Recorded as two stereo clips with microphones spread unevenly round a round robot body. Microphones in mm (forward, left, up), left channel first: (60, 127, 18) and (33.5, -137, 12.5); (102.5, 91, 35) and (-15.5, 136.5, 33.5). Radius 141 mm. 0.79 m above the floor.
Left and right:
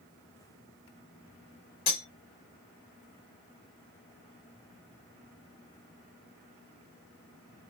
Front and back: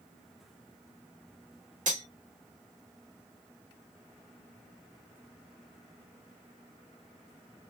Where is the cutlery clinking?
145° left, 1.9 m.